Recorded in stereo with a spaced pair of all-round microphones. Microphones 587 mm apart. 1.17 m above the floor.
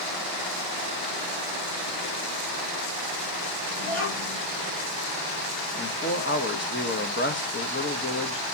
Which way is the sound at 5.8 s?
20° left (ahead or behind).